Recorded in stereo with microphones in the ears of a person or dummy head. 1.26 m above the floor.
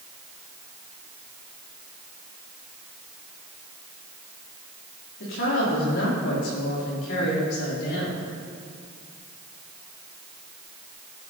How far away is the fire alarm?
No fire alarm in this recording.